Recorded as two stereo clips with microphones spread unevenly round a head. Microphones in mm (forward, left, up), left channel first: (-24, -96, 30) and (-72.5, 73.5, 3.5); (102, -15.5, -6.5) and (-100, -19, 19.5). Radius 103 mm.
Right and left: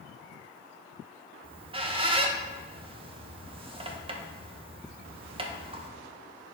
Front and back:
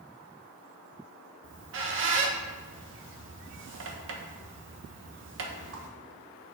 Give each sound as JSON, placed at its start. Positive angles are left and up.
{"t": 1.4, "sound": "a squeak", "azimuth_deg": 170, "distance_m": 0.9}